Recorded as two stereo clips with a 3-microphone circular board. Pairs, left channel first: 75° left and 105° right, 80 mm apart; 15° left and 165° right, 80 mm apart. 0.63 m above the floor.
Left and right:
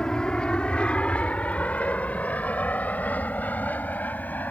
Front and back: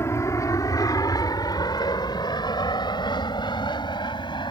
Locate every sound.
0.0 s an aircraft: straight ahead; by 4.5 s 5° left